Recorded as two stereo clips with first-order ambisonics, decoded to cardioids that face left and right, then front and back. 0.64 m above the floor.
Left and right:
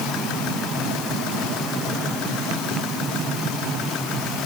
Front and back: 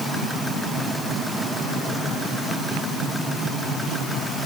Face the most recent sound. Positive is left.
No sound to turn to.